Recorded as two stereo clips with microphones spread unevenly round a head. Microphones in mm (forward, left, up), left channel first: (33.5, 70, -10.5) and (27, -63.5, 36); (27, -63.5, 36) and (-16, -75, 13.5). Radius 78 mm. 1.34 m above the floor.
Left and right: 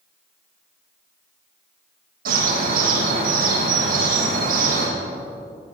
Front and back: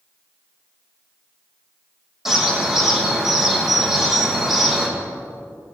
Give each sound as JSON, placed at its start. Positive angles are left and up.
{"t": 2.2, "sound": "a bird", "azimuth_deg": -80, "distance_m": 9.5}